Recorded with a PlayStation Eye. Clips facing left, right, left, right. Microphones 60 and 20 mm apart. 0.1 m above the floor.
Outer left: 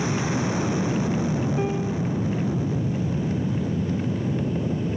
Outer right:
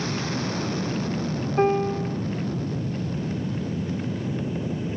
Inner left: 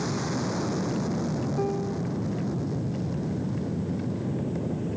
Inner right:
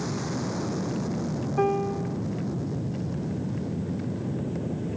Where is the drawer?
No drawer in this recording.